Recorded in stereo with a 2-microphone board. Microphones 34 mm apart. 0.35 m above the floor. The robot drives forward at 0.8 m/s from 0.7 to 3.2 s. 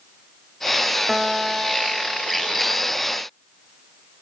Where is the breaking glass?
No breaking glass in this recording.